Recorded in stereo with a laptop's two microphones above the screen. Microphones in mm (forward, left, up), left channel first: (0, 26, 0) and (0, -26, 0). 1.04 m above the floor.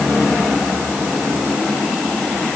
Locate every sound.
Only background noise.